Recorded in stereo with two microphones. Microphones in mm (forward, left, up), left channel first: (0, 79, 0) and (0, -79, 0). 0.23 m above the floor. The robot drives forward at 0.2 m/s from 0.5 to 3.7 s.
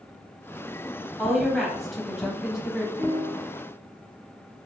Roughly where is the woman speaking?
Centre.